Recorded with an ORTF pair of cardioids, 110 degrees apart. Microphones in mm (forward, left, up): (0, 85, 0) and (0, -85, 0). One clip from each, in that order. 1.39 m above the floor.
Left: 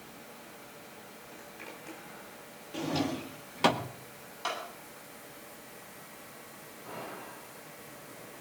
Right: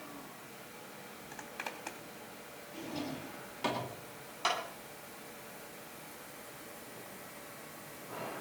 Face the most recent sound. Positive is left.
turn(degrees=-25)